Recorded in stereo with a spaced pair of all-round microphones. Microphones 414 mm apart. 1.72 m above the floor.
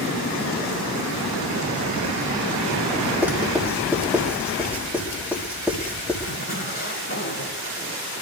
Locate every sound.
3.2 s writing: 5° right (ahead or behind), 6.5 m
6.2 s a zipper: 35° left (ahead or behind), 9 m